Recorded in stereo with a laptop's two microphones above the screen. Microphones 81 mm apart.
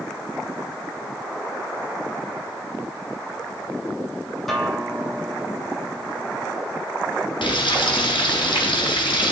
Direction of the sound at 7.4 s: 80° left.